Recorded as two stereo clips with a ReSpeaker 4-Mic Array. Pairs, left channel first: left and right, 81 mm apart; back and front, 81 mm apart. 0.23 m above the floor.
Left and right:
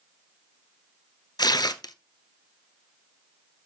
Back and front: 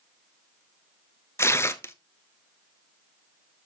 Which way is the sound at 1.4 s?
120° left.